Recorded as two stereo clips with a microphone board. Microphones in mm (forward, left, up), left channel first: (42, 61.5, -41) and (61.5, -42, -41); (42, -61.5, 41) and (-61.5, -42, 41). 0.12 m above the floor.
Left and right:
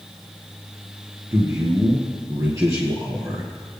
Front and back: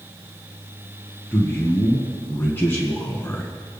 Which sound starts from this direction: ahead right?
A man speaking, at 1.3 s.